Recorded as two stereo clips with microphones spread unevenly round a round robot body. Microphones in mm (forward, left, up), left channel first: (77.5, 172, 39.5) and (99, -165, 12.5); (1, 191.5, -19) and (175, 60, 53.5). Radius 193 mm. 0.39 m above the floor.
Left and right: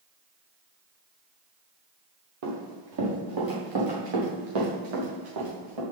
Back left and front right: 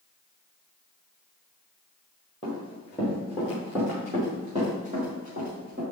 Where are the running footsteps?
140° right, 3.5 m; by 5.8 s 100° right, 4.5 m.